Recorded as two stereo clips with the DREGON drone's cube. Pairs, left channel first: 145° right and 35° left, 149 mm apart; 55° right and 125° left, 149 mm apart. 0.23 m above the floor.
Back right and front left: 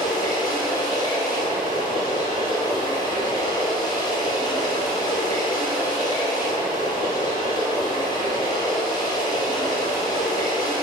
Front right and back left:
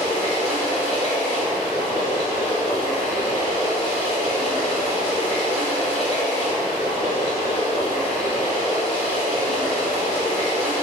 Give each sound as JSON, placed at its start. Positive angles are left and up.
{"t": 0.0, "sound": "running water", "azimuth_deg": -90, "distance_m": 1.2}